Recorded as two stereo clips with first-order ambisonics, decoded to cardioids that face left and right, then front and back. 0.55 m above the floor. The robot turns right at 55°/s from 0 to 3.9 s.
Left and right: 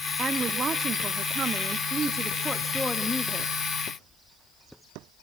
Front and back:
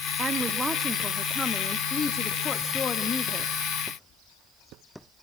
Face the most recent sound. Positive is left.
turn(degrees=65)